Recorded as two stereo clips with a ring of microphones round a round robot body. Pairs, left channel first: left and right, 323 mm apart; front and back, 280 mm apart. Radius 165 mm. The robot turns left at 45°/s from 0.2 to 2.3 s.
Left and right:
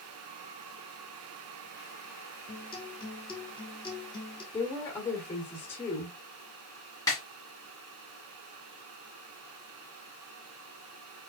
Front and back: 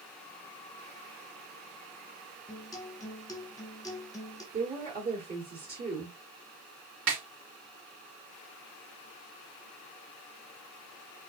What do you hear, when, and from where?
2.5 s a guitar: 50° left, 1.3 m
4.5 s a woman speaking: 170° left, 1.6 m
7.1 s a snare drum: 170° left, 2 m